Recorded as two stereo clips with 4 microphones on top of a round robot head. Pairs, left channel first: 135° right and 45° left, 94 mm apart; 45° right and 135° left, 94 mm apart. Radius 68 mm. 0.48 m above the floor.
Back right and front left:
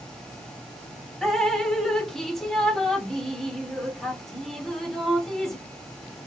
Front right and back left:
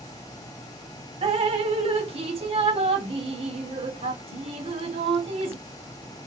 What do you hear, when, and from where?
1.2 s dripping: 140° left, 0.9 m